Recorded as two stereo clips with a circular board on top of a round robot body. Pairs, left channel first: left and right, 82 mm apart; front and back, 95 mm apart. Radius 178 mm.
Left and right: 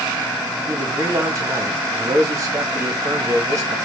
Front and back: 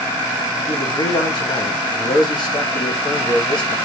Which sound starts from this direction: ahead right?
A man speaking, at 0.7 s.